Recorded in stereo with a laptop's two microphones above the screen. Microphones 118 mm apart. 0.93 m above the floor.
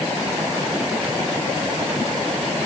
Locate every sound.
Only background noise.